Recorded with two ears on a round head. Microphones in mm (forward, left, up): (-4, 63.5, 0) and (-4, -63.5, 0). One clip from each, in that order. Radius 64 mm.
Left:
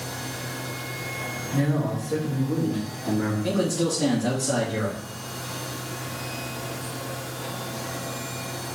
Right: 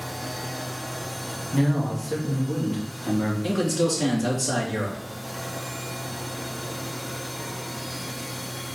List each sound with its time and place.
1.5 s a man speaking: 55° right (ahead or behind), 2.5 m; by 3.3 s 25° right (ahead or behind), 3 m
3.4 s a man speaking: 70° right (ahead or behind), 2.5 m